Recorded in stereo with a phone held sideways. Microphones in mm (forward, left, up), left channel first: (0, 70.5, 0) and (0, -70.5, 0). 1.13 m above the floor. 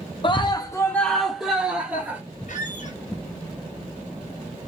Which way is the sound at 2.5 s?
60° left (ahead or behind).